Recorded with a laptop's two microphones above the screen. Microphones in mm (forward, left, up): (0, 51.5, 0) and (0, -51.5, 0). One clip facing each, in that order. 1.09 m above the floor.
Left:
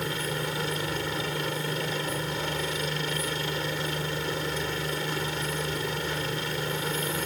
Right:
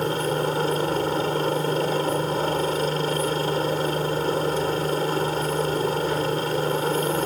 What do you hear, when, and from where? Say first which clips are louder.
0.0 s a helicopter: right 8 dB; 40° right (ahead or behind)